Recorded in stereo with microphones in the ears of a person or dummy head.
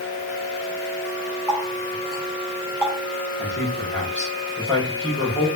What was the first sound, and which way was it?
A running tap, 10° left (ahead or behind).